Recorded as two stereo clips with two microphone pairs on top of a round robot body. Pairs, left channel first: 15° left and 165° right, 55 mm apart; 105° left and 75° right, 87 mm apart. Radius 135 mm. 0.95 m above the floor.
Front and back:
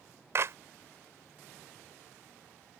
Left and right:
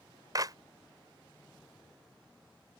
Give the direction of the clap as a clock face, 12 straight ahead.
4 o'clock.